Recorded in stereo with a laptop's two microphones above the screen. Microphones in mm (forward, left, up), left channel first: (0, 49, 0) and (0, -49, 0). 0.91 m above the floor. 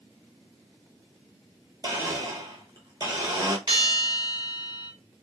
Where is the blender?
40° right (ahead or behind), 0.7 m.